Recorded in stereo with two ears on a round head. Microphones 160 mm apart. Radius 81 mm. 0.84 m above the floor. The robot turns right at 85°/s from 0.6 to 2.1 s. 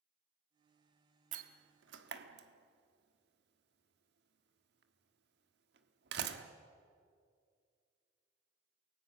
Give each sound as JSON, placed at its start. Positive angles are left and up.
{"t": 1.3, "sound": "a door slam", "side_deg": -45, "distance_m": 1.6}